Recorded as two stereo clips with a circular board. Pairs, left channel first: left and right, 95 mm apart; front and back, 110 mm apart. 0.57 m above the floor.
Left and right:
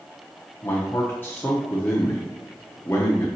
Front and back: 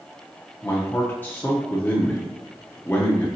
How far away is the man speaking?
About 0.6 m.